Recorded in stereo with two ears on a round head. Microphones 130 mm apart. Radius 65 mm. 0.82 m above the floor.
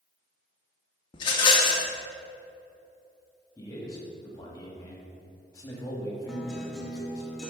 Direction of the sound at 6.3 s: Centre (ahead or behind).